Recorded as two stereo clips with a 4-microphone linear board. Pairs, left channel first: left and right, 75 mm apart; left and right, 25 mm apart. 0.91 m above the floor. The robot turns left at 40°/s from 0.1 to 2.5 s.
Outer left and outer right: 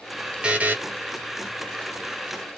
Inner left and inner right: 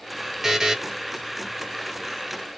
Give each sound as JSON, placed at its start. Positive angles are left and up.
{"t": 0.4, "sound": "a buzzer", "side_deg": -15, "distance_m": 0.6}